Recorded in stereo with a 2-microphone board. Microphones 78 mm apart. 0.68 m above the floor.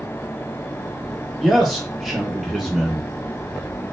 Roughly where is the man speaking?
Centre.